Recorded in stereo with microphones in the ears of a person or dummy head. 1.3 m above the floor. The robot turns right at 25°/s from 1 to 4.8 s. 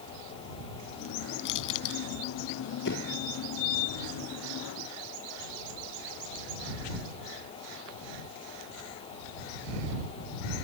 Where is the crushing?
60° left (ahead or behind); by 2.0 s 75° left (ahead or behind).